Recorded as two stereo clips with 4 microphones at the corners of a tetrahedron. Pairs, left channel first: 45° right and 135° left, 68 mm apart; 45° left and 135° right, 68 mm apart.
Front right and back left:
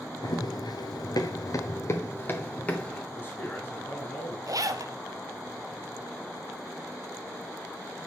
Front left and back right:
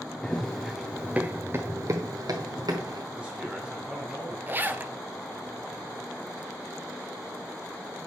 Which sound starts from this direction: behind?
A zipper, at 4.5 s.